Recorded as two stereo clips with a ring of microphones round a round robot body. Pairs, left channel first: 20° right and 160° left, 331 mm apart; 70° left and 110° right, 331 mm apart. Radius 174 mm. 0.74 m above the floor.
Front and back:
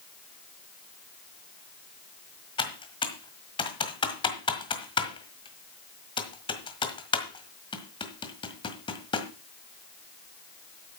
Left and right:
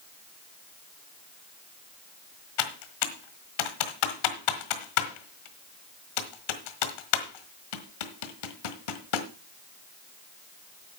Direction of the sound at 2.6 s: 55° left.